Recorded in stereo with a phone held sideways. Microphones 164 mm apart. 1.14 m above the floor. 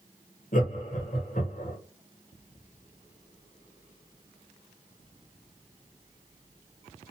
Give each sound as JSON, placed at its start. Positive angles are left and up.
{"t": 0.5, "sound": "laughter", "side_deg": 55, "distance_m": 1.2}